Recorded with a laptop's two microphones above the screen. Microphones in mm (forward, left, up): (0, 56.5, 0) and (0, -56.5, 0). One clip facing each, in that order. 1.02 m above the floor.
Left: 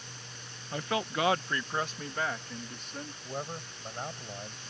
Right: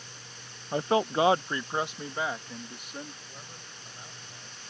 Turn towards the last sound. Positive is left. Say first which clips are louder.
# left 10 dB
turn(degrees=60)  # may be behind; listen again after turning